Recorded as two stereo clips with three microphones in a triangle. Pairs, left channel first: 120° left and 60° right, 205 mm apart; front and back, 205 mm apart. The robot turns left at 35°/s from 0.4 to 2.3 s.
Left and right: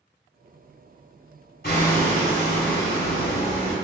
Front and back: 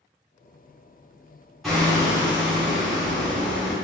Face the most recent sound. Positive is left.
turn(degrees=65)